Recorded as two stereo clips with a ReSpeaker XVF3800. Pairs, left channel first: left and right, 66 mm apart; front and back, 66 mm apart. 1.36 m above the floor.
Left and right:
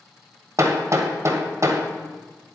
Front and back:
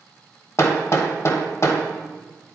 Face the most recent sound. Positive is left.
turn(degrees=-50)